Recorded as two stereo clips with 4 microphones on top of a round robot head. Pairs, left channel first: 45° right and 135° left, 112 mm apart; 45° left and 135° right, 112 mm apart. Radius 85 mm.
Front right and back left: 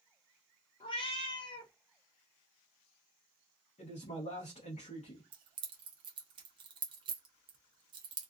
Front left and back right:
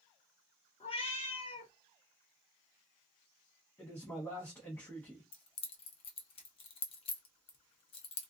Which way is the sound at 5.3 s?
85° left.